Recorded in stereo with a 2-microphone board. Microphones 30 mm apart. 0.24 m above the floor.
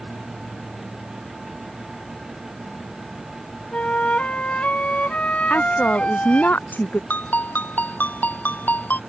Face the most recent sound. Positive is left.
turn(degrees=80)